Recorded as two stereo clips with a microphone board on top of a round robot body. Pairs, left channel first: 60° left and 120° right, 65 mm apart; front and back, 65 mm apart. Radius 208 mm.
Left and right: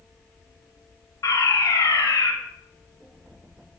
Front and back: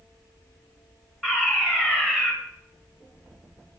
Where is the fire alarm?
100° left, 6.5 m.